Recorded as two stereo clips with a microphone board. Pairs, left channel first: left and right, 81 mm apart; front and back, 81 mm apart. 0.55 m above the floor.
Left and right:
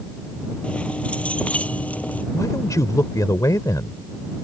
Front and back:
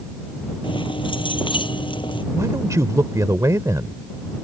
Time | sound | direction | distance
0.6 | keys jangling | 15° left | ?
2.3 | a man speaking | 135° left | ?